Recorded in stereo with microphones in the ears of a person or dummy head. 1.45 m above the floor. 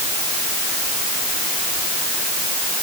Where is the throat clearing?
No throat clearing in this recording.